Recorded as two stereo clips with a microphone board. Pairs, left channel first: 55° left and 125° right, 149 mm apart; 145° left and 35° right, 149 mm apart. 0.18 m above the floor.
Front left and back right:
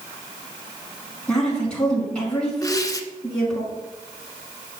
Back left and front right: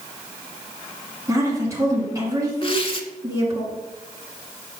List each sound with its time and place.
1.3 s a woman speaking: 20° right, 1.7 m
2.6 s tearing paper: 110° left, 0.5 m